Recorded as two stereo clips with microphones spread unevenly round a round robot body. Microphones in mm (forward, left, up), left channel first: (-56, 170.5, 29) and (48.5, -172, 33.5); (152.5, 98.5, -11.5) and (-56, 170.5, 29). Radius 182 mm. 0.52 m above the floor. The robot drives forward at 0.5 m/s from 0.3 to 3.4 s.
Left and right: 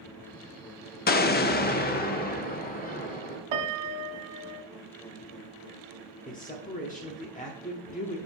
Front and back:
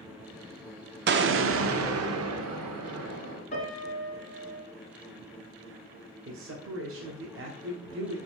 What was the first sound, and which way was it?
An explosion, 155° left.